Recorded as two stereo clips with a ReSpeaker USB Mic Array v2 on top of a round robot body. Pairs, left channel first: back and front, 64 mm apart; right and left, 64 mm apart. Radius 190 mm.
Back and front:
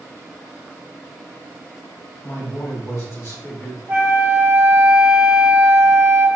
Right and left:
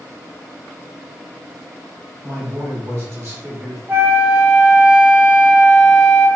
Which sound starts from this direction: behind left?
A man speaking, at 2.2 s.